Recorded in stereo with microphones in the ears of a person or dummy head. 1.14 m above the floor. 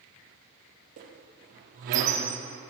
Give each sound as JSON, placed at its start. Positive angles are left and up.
{"t": 1.0, "sound": "a squeak", "side_deg": -40, "distance_m": 0.7}